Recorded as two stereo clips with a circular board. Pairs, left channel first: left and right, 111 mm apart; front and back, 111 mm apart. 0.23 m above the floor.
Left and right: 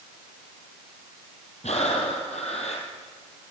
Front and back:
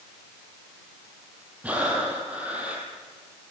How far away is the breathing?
About 3.5 m.